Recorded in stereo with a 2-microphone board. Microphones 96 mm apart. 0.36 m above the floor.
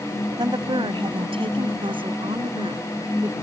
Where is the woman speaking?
50° right (ahead or behind); by 3.3 s 55° right (ahead or behind).